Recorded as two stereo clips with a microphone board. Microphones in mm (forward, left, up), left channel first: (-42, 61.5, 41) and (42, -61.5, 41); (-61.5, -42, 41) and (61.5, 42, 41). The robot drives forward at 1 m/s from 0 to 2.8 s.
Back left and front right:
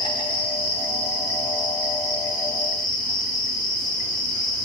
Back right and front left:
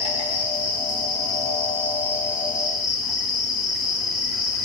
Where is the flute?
I don't hear a flute.